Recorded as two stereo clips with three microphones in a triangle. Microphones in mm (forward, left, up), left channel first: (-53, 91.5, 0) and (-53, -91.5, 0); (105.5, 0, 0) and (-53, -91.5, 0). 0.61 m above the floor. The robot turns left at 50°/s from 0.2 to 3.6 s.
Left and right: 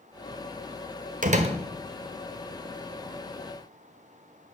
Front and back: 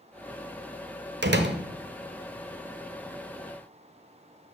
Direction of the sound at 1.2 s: 135° right.